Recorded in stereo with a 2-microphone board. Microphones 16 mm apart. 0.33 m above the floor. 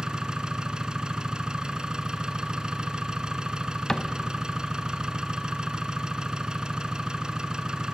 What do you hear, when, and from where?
0.0 s an engine running: 80° right, 1.4 m
3.9 s a cupboard door: 65° left (ahead or behind), 0.9 m